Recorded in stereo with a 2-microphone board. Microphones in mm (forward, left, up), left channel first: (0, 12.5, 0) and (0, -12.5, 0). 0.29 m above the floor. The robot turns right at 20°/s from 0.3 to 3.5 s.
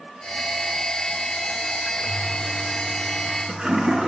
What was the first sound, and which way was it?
A toilet flushing, 60° right (ahead or behind).